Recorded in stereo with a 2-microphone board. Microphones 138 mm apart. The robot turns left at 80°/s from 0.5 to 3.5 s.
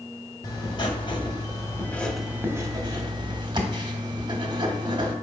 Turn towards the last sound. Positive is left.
turn(degrees=-110)